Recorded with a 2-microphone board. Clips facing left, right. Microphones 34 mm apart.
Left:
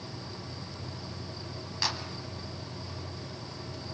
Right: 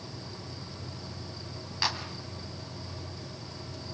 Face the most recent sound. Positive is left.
turn(degrees=-10)  # may be behind; listen again after turning